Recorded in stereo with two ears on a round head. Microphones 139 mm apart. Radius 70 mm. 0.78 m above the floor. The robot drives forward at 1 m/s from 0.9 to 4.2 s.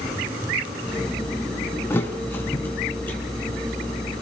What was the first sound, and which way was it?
A thud, 15° left (ahead or behind).